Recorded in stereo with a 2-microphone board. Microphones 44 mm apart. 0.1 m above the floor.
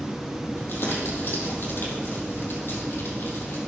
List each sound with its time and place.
0.6 s crumpling: 55° left (ahead or behind), 4 m